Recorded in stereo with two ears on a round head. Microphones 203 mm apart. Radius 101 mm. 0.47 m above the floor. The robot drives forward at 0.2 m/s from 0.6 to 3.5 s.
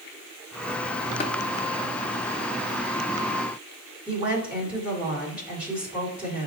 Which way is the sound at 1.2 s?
25° left (ahead or behind).